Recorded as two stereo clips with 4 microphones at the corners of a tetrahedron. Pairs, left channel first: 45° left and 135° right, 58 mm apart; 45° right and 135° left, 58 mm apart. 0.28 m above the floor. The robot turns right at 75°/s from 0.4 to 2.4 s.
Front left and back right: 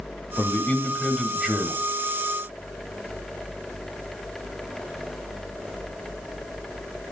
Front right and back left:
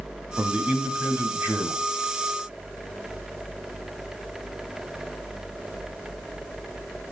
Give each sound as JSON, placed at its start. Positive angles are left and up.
{"t": 0.4, "sound": "a man speaking", "azimuth_deg": 75, "distance_m": 2.0}